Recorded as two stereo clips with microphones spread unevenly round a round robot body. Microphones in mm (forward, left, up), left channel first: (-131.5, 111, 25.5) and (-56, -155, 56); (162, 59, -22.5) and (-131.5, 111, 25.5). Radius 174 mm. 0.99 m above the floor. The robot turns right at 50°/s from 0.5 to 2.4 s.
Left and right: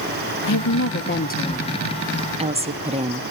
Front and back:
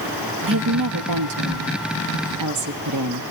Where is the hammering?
I don't hear hammering.